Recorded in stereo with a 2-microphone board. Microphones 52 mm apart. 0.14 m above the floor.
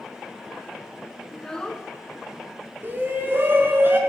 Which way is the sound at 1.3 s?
15° left (ahead or behind).